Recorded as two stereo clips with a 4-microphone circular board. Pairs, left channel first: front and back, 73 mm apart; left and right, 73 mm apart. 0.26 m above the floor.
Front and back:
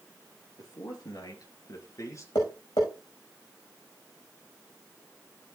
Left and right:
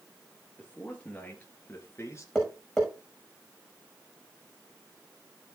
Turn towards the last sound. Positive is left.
turn(degrees=5)